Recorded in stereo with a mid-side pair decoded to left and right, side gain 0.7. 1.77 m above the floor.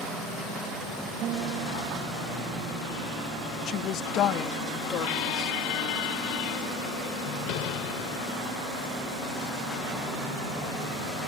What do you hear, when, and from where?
1.2 s a guitar: 55° right
3.7 s a woman speaking: 50° left
5.0 s a squeak: 65° left